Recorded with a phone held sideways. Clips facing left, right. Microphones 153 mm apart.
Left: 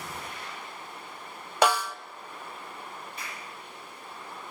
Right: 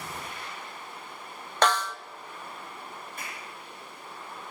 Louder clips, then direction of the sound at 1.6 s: Left 1 dB; 10° left (ahead or behind).